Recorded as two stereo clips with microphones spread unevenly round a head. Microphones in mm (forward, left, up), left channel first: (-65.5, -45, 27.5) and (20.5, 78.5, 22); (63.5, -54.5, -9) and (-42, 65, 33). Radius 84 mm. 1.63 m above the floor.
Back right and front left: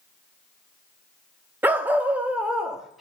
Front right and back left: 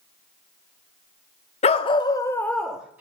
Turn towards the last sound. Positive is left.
turn(degrees=150)